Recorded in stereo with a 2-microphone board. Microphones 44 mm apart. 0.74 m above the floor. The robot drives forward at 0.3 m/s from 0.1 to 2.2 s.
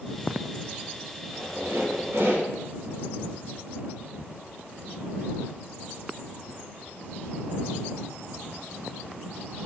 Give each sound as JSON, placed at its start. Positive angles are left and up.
{"t": 1.2, "sound": "a squeak", "side_deg": -70, "distance_m": 0.8}